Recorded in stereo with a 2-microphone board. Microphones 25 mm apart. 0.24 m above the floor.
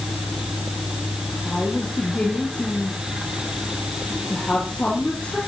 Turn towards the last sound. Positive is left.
turn(degrees=80)